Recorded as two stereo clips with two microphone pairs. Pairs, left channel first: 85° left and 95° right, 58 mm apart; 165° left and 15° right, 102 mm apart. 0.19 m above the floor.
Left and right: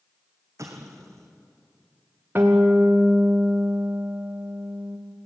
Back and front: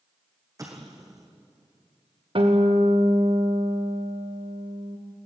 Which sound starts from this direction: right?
An explosion, at 0.6 s.